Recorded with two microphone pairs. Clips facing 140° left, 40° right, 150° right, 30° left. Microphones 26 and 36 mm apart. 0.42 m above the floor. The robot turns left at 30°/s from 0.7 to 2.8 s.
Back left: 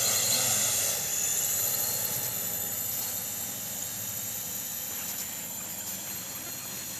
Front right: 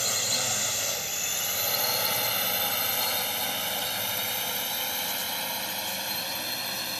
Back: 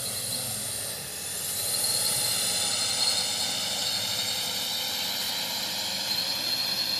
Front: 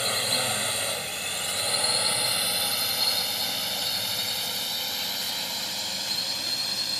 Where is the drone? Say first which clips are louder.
Front right 1 dB, front 9 dB; 35° left; by 7.0 s 65° right.